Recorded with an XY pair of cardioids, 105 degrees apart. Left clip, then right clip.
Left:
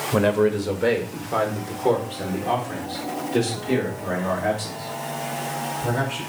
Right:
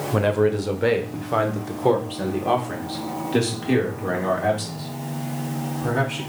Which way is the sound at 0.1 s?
5° left.